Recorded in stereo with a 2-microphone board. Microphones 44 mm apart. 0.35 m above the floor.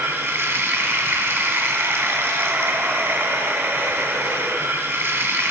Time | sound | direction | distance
0.0 | running water | 70° right (ahead or behind) | 1.5 m